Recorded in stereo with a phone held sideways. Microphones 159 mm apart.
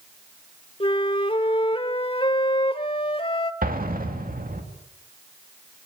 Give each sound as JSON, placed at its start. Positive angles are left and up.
{"t": 0.8, "sound": "a flute", "side_deg": 35, "distance_m": 1.1}
{"t": 3.6, "sound": "an explosion", "side_deg": -65, "distance_m": 2.5}